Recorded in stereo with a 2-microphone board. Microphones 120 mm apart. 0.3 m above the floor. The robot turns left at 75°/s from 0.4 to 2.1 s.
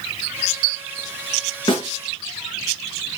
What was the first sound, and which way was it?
A snare drum, 45° left (ahead or behind).